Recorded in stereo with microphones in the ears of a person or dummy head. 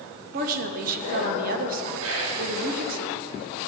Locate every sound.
0.3 s a woman speaking: 50° right (ahead or behind), 0.9 m
2.0 s whispering: 80° right, 3.5 m